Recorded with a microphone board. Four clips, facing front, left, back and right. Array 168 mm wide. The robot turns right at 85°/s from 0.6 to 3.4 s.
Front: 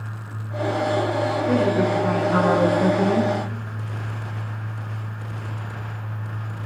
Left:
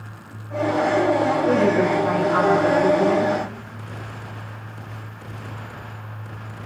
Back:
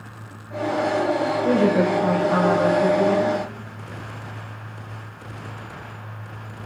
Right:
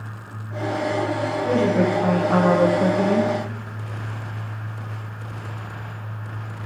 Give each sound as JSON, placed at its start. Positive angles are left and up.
{"t": 1.4, "sound": "a woman speaking", "azimuth_deg": 175, "distance_m": 5.5}